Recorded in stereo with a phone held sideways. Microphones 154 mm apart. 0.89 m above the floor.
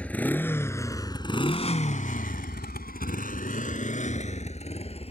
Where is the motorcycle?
10° left (ahead or behind); by 5.1 s 40° left (ahead or behind).